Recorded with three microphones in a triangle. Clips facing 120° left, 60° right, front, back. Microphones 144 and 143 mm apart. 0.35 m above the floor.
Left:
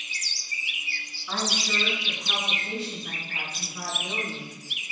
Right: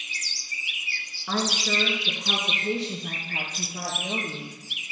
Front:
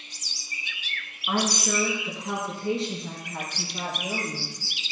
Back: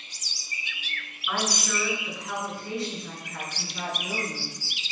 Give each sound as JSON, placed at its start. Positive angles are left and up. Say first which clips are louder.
{"t": 1.3, "sound": "a woman speaking", "louder": "right 4 dB, front 4 dB", "azimuth_deg": -50, "distance_m": 3.5}